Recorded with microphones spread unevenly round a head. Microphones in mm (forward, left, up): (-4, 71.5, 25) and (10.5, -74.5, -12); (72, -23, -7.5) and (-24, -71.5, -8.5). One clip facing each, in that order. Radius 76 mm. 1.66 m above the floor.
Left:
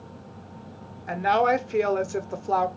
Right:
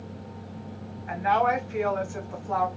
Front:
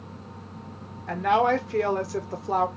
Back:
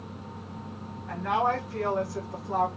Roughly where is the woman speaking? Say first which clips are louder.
Left 2 dB, front 5 dB; ahead left.